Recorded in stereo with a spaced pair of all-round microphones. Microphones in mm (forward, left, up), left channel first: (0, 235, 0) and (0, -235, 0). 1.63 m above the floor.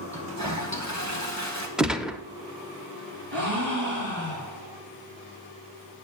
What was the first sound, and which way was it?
A toilet flushing, 35° right (ahead or behind).